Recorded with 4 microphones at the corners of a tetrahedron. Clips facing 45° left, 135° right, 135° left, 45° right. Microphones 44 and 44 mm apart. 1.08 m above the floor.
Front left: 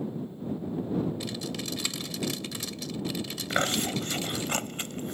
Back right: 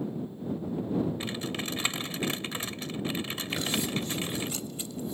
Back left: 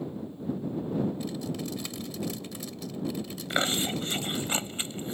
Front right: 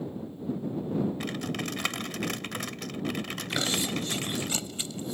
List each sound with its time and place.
1.2 s typing on a keyboard: 75° right
3.5 s chewing: 75° left